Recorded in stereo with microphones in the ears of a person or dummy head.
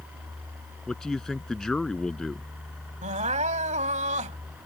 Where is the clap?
No clap in this recording.